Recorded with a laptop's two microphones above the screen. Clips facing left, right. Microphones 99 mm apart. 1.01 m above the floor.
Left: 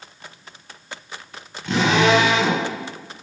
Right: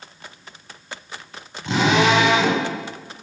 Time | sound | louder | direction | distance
1.6 | a drill | even | 20° right (ahead or behind) | 7.5 m